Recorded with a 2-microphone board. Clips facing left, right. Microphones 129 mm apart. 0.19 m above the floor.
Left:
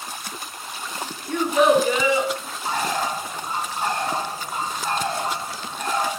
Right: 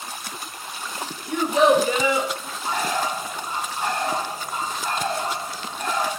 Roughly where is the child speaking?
Centre.